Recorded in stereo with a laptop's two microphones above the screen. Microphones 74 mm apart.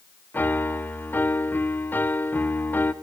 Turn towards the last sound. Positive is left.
turn(degrees=25)  # may be behind; listen again after turning